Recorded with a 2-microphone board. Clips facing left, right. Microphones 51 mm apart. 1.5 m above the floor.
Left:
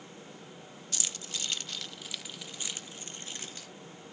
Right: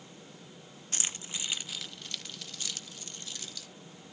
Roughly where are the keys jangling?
Right.